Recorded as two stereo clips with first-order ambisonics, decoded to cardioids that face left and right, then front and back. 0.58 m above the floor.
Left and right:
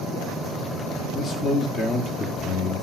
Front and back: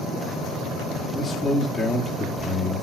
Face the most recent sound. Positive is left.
turn(degrees=75)